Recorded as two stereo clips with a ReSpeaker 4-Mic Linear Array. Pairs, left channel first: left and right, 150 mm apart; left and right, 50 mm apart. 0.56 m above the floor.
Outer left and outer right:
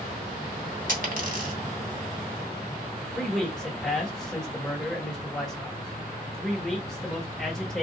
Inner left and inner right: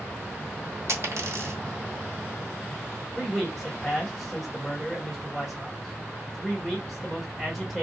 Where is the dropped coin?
60° right (ahead or behind), 1.0 m.